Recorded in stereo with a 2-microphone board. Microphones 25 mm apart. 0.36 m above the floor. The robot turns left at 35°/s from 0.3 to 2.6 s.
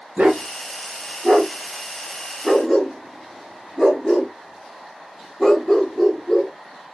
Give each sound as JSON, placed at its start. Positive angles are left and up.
{"t": 0.2, "sound": "a dog barking", "side_deg": -75, "distance_m": 1.5}